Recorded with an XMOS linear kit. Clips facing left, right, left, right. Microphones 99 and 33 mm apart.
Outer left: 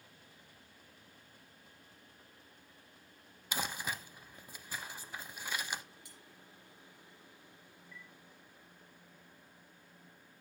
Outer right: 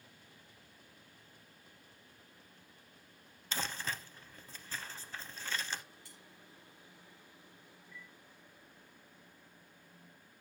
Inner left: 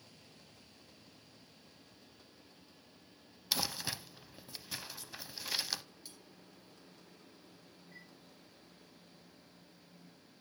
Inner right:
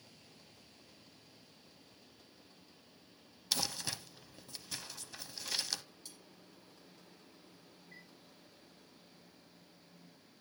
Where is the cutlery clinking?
20° left (ahead or behind), 3.5 m.